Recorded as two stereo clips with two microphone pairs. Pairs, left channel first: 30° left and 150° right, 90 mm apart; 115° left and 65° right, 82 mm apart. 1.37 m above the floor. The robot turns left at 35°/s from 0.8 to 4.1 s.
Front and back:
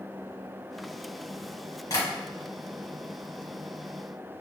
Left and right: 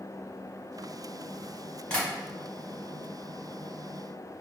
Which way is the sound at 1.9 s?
40° left.